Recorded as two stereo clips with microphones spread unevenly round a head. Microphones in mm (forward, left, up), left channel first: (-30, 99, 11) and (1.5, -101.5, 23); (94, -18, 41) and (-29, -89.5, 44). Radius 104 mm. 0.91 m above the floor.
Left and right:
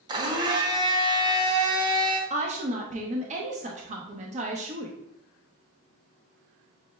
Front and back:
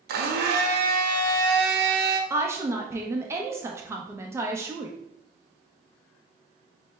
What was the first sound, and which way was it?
A blender, 150° right.